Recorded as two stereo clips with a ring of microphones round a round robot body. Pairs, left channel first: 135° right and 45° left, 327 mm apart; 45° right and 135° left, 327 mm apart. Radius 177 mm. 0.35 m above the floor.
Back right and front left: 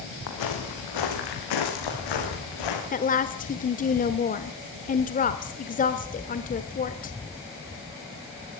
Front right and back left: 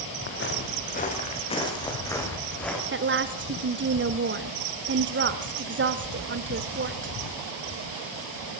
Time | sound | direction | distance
0.3 | footsteps | 100° right | 5 m
2.9 | a woman speaking | 170° left | 1.2 m